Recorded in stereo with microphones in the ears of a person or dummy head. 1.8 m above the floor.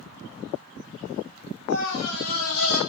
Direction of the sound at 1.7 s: 80° left.